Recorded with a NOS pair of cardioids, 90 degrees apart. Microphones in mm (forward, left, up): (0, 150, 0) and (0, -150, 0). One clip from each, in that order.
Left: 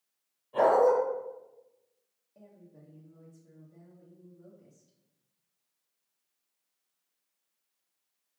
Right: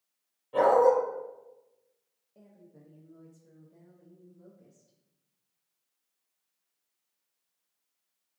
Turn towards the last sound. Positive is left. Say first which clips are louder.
# left 1 dB
turn(degrees=-10)